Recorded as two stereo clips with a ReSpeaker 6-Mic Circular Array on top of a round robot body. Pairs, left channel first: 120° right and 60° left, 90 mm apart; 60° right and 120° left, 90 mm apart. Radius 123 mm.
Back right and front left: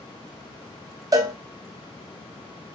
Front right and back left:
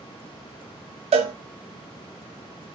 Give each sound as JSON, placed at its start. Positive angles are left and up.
{"t": 1.1, "sound": "a cowbell", "azimuth_deg": 115, "distance_m": 0.5}